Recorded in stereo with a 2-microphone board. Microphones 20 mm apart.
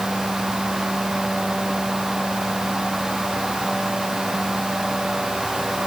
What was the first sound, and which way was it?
Only background noise.